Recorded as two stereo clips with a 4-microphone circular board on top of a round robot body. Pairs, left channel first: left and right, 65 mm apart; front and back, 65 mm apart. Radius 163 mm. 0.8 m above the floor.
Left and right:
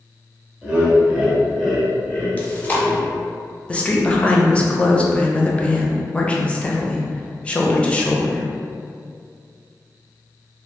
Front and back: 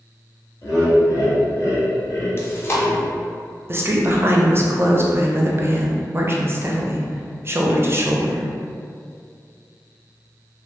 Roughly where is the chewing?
Ahead left.